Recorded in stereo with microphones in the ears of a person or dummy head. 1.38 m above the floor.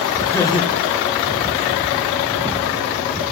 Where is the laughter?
10° left (ahead or behind), 0.5 m; by 2.1 s 75° left (ahead or behind), 1.2 m.